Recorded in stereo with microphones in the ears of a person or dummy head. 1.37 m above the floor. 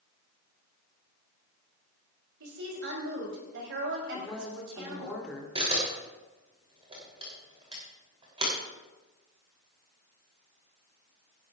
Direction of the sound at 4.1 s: 5° right (ahead or behind).